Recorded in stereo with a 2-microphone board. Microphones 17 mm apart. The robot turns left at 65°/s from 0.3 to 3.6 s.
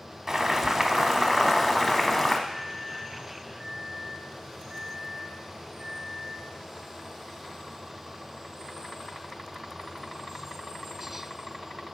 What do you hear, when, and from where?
0.3 s boiling: 15° right (ahead or behind), 0.8 m; by 2.4 s 20° left (ahead or behind), 0.8 m
2.5 s a microwave: 20° right, 2.5 m; by 6.5 s 90° right, 2.5 m